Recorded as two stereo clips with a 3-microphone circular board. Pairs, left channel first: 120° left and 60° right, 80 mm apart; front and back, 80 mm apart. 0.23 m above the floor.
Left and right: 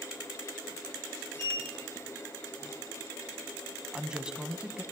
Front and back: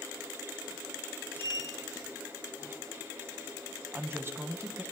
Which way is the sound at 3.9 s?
135° right.